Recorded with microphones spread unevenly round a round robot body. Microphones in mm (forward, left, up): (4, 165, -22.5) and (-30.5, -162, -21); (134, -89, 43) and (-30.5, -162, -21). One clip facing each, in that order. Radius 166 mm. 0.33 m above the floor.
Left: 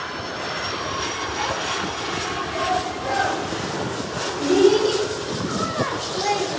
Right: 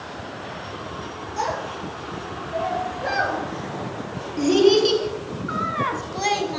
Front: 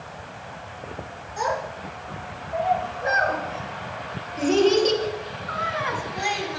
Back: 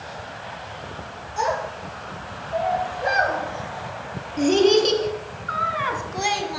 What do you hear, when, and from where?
1.4 s a child speaking: 95° right, 4.5 m; by 6.6 s 140° right, 1.5 m